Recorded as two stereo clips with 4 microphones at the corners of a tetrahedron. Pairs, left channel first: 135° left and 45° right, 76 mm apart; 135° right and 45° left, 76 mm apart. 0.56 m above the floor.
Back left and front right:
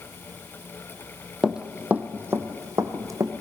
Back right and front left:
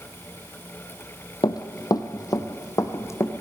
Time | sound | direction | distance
1.4 | running footsteps | 130° right | 1.1 m